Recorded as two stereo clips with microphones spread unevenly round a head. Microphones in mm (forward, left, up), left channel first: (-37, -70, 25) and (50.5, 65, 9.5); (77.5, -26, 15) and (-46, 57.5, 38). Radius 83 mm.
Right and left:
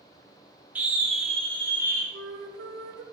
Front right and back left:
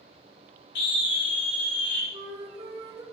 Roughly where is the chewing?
I don't hear chewing.